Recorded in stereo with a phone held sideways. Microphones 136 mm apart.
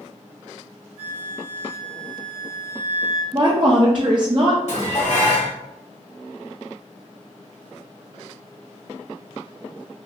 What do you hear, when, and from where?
1.0 s a flute: 55° left (ahead or behind), 1.3 m
3.3 s a woman speaking: 35° right (ahead or behind), 0.5 m
4.7 s dishes clattering: 60° left (ahead or behind), 1.4 m